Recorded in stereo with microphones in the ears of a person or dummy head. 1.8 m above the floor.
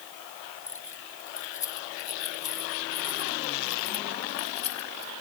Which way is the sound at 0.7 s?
15° left (ahead or behind).